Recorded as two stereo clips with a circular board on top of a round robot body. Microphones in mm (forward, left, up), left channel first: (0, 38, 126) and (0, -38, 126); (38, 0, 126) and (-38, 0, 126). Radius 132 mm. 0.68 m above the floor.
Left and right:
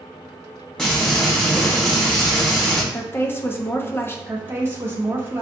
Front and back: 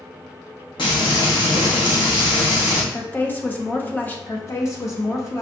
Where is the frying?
10° left, 1.4 m.